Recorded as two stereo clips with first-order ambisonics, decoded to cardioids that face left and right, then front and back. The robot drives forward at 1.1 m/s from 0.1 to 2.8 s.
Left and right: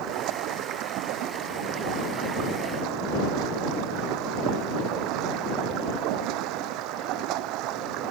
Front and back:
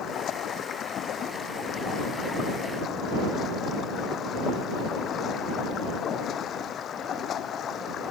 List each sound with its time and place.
0.0 s running water: 55° right; by 8.1 s 60° right